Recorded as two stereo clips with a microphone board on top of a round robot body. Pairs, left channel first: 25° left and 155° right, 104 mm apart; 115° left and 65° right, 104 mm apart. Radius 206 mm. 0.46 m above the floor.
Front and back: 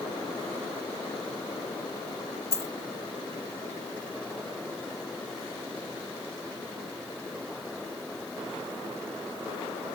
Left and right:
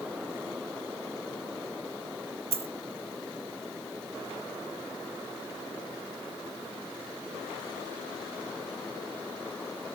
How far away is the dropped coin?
About 1.0 m.